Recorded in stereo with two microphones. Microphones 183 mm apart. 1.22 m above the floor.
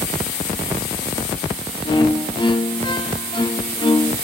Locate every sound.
1.9 s a violin: 25° left (ahead or behind), 1.0 m